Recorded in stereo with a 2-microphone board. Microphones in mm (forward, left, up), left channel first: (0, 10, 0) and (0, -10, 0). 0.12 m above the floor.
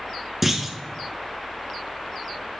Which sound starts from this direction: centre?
A clunk, at 0.4 s.